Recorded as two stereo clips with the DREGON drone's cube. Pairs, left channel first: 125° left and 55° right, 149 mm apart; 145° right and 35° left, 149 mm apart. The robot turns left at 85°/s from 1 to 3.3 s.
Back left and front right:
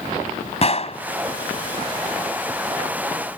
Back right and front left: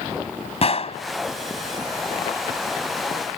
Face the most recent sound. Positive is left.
turn(degrees=-25)